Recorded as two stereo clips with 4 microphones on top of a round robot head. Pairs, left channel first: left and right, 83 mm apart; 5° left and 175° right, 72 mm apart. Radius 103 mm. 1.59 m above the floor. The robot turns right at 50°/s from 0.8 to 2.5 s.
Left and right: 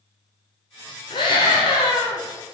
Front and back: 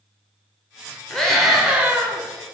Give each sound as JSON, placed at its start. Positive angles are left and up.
{"t": 1.1, "sound": "a scream", "azimuth_deg": 80, "distance_m": 0.6}